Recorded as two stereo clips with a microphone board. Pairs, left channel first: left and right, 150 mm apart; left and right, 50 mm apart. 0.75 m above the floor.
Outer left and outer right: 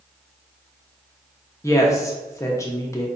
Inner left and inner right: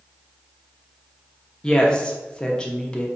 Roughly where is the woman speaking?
Centre.